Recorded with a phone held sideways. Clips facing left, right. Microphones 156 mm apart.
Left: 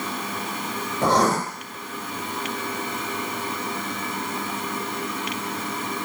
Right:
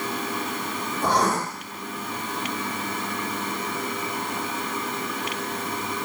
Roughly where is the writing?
Left.